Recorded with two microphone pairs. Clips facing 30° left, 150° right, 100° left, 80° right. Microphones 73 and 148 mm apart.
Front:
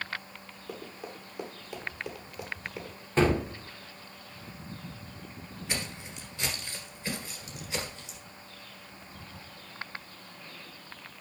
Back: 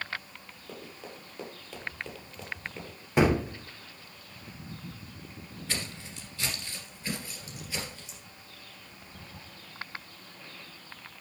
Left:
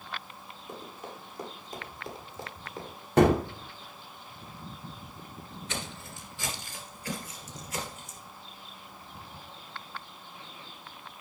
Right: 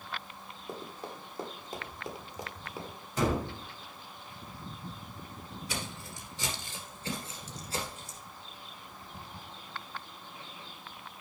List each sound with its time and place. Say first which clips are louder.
0.7 s running footsteps: front 3 dB, right 1 dB; 40° right, 2.5 m; by 3.0 s 15° right, 1.6 m
3.2 s a gunshot: back 1 dB, left 9 dB; 130° left, 0.7 m
5.7 s footsteps: front 1 dB, left 1 dB; 15° right, 1.7 m; by 8.2 s 35° right, 2.5 m